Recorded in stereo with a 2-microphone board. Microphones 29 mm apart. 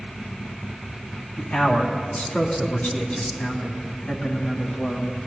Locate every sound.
1.4 s a man speaking: 70° left (ahead or behind), 3.5 m; by 5.1 s 55° left (ahead or behind), 2.5 m